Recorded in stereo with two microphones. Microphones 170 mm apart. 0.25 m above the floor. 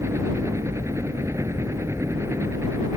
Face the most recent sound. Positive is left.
turn(degrees=-15)  # may be behind; listen again after turning